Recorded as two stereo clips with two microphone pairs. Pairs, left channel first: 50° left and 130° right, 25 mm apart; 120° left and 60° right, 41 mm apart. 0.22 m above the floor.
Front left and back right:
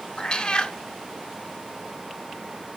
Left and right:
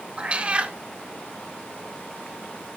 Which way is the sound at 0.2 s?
5° right.